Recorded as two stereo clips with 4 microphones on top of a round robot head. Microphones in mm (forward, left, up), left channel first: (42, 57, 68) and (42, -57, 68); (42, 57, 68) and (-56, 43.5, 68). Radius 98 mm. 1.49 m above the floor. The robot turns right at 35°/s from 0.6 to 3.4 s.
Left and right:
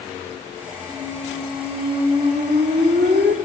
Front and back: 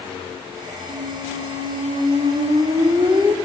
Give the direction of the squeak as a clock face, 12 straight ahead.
6 o'clock.